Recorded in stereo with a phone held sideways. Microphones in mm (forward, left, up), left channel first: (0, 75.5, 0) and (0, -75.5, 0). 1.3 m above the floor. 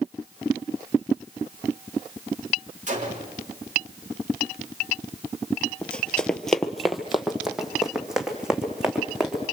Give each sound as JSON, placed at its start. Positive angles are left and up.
{"t": 2.9, "sound": "a gunshot", "side_deg": -50, "distance_m": 3.5}
{"t": 5.8, "sound": "running footsteps", "side_deg": 5, "distance_m": 1.3}